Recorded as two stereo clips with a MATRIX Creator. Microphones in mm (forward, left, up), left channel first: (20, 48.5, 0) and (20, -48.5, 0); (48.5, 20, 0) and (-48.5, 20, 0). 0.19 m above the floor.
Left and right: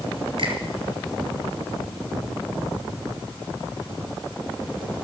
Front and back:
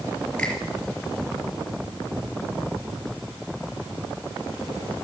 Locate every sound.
0.4 s a finger snap: 75° right, 3.5 m